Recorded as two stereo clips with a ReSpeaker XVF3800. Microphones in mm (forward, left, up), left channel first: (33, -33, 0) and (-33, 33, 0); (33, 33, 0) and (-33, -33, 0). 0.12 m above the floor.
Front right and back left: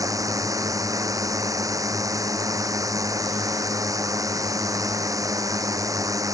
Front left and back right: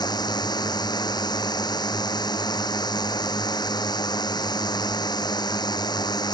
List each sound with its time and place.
0.0 s a drone: 85° left